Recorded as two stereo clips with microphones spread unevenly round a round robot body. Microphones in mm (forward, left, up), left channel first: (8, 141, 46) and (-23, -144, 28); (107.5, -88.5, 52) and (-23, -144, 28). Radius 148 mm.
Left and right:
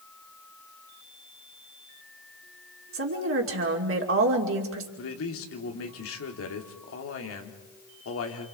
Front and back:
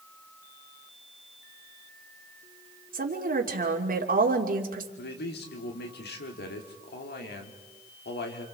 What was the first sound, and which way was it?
A woman speaking, 140° right.